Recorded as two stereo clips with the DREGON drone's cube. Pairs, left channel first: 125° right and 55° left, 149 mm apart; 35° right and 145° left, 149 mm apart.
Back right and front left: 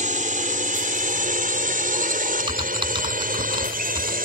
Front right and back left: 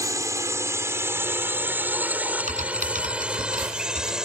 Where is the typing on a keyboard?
110° left.